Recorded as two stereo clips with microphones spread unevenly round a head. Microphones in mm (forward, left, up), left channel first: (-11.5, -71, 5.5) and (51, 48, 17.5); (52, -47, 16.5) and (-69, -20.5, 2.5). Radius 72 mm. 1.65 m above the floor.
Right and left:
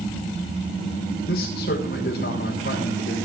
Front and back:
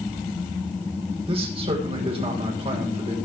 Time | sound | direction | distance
1.3 | a man speaking | 145° right | 7.5 m